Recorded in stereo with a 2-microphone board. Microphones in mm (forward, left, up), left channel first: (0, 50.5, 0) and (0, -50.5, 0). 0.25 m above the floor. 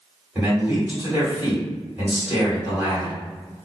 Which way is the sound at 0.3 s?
20° right (ahead or behind).